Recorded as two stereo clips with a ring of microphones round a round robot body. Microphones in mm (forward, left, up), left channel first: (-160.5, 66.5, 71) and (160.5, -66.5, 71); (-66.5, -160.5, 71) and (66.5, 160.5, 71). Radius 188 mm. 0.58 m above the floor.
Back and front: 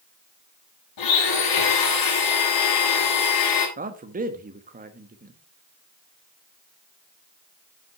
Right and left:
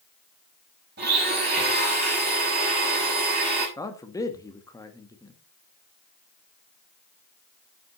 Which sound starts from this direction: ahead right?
A man speaking, at 3.8 s.